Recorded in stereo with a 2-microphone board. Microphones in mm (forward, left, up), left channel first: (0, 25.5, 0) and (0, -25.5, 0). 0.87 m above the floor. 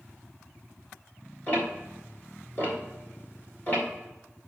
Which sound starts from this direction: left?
Ticking, at 1.5 s.